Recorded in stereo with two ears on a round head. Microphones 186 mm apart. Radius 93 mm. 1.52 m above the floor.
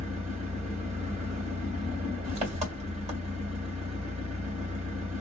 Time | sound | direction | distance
0.0 | an engine running | 35° right (ahead or behind) | 1.6 m